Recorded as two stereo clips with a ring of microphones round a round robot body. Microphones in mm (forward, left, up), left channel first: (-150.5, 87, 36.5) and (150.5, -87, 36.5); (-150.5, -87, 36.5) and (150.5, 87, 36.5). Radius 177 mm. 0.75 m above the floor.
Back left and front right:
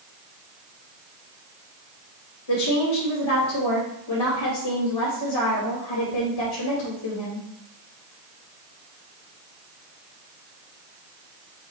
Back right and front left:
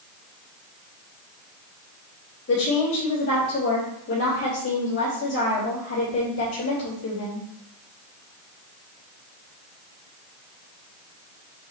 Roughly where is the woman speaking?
Behind left.